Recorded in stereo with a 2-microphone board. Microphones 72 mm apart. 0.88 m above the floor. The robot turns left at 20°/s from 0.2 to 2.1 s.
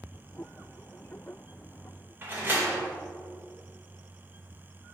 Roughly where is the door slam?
Right.